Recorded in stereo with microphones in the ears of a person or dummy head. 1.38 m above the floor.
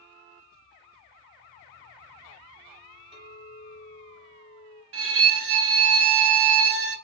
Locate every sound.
3.1 s a clink: 35° right (ahead or behind), 0.9 m
4.9 s a violin: 65° right (ahead or behind), 0.6 m